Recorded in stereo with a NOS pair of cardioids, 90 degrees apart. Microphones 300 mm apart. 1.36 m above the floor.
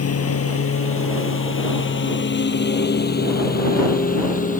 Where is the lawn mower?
50° left; by 4.6 s 25° left.